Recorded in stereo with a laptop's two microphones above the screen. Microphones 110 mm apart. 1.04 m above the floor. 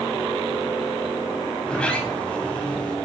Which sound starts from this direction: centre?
A sliding door, at 1.6 s.